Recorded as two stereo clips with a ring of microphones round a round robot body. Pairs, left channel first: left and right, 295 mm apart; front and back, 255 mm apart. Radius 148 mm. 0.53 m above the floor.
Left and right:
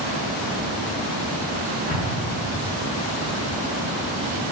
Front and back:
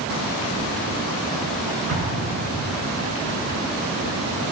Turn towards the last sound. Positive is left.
turn(degrees=155)